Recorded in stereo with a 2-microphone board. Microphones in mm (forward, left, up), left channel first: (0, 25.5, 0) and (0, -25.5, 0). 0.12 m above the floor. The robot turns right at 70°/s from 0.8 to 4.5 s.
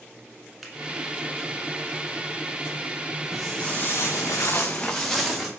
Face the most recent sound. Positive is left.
turn(degrees=-5)  # may be behind; listen again after turning